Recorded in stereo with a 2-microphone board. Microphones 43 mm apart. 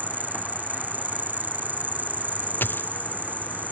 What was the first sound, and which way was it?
An insect, 45° right (ahead or behind).